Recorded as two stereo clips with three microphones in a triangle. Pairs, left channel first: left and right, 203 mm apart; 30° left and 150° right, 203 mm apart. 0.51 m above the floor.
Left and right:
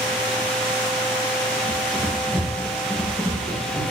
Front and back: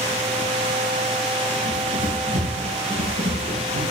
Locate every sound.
1.7 s running footsteps: 160° left, 7.5 m; by 3.8 s 155° left, 10.5 m